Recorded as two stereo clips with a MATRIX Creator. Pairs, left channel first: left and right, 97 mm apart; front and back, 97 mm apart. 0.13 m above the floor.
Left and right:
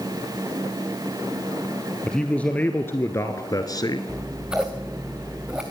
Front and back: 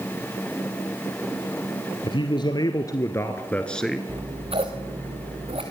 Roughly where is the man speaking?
Ahead.